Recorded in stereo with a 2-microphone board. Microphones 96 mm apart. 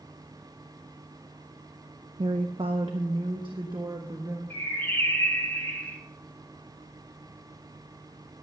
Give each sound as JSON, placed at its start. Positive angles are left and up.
{"t": 2.2, "sound": "a woman speaking", "side_deg": -70, "distance_m": 0.6}
{"t": 4.5, "sound": "a bird", "side_deg": 20, "distance_m": 2.0}